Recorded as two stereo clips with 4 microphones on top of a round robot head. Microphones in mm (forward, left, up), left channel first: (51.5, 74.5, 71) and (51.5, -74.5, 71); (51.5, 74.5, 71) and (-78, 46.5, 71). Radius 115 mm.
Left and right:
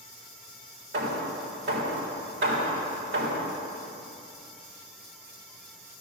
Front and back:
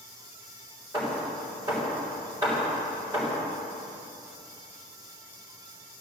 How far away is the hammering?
About 3.5 m.